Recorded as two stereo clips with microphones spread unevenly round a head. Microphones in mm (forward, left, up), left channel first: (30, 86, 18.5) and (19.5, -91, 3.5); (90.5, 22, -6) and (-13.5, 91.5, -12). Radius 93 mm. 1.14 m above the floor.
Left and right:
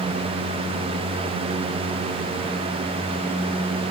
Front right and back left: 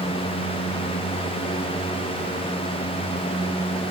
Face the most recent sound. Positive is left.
No sound to turn to.